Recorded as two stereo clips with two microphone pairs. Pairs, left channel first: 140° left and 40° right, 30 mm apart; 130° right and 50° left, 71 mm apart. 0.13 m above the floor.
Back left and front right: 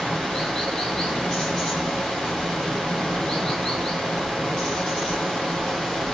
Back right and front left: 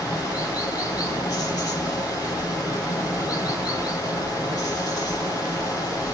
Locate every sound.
0.0 s running water: 150° right, 2.5 m